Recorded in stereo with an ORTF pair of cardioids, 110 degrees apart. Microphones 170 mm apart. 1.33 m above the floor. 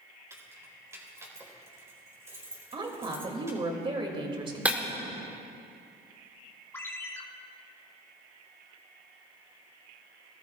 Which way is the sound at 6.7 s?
15° left.